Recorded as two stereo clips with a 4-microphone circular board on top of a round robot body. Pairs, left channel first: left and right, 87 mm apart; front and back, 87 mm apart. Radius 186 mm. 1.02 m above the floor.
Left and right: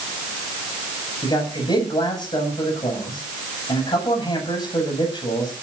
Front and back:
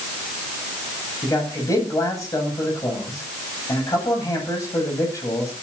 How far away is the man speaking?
About 10 m.